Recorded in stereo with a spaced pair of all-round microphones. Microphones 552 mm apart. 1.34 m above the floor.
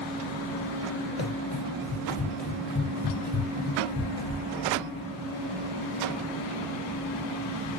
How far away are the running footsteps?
About 2.0 m.